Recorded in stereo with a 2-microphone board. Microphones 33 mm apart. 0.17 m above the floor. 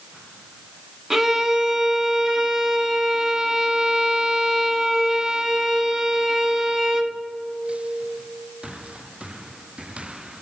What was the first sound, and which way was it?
A violin, 15° right (ahead or behind).